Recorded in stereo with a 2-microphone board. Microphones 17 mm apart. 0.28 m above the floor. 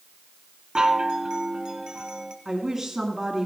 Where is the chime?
55° right (ahead or behind), 1.6 m.